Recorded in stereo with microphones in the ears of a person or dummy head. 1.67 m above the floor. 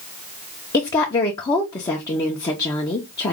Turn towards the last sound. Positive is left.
turn(degrees=20)  # may be behind; listen again after turning